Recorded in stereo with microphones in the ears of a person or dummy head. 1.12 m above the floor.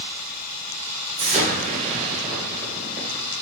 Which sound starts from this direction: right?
An explosion, at 1.2 s.